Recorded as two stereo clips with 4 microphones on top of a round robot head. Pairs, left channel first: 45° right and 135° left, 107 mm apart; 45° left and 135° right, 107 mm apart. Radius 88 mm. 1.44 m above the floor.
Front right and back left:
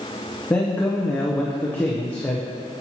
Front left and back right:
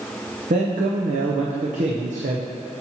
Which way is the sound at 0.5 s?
120° right.